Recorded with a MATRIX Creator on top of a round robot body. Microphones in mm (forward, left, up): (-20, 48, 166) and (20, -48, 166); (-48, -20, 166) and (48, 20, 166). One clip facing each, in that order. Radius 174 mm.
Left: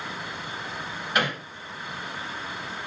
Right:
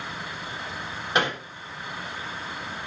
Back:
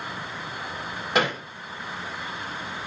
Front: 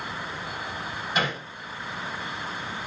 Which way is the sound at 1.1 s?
135° right.